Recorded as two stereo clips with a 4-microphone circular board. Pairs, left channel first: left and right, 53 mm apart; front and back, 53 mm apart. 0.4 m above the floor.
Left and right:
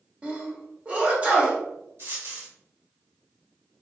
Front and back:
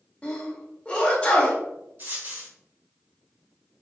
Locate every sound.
0.2 s a sneeze: 50° right, 1.0 m
2.0 s a dropped coin: 130° right, 1.8 m